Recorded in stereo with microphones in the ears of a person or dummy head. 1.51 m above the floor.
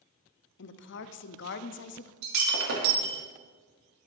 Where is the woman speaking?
60° left (ahead or behind), 0.6 m.